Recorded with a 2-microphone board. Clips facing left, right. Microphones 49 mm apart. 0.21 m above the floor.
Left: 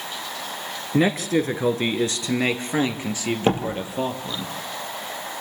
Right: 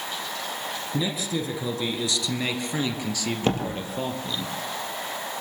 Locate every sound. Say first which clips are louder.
0.9 s a man speaking: left 9 dB; 55° left (ahead or behind), 2.5 m; by 4.5 s 15° left (ahead or behind), 4 m
3.5 s a door slam: left 4 dB; 15° left (ahead or behind), 4.5 m